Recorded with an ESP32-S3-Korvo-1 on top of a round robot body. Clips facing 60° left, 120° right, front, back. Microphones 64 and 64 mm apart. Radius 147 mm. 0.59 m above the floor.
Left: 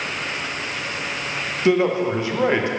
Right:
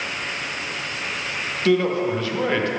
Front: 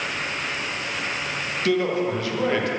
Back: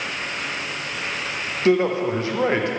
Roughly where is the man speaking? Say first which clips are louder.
Left 1 dB, back 4 dB; behind left.